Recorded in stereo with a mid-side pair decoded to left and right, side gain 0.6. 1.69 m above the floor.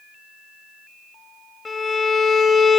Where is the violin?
25° left, 2.5 m.